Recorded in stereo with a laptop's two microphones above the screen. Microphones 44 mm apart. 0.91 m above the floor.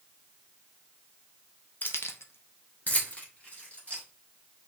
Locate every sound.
1.8 s keys jangling: 45° left (ahead or behind), 0.5 m; by 4.0 s 30° left (ahead or behind), 2.5 m